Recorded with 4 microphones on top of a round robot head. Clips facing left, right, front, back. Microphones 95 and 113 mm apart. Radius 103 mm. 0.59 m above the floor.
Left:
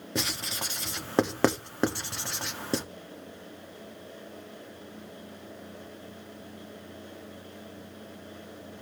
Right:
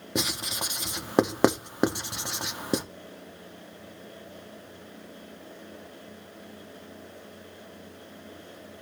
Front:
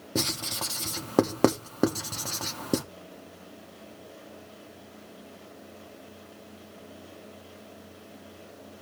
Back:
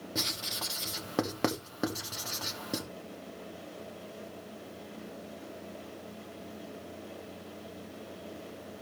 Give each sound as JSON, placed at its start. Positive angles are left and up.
{"t": 0.1, "sound": "writing", "azimuth_deg": -20, "distance_m": 1.2}